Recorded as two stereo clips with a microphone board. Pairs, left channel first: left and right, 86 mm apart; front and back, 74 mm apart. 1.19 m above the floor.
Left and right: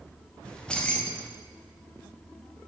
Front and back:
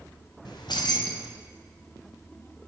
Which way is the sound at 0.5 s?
10° left.